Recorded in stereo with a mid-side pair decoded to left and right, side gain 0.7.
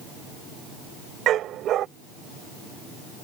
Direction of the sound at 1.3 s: 50° right.